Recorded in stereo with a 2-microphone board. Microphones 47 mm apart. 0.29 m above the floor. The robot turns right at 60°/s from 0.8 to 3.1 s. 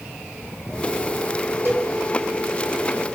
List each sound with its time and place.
1.6 s a cowbell: 60° right (ahead or behind), 3 m; by 1.9 s 45° right (ahead or behind), 3 m